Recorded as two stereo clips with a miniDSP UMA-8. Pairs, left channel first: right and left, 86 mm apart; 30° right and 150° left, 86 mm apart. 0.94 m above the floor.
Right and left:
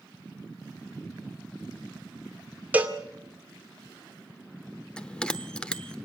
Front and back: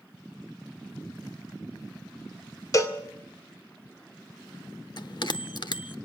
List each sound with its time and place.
2.7 s a cowbell: 20° left, 2 m
5.0 s a bell: 10° right, 0.9 m